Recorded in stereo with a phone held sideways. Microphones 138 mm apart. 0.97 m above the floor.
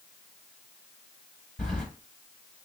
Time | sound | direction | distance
1.6 | keys jangling | 5° left (ahead or behind) | 3.5 m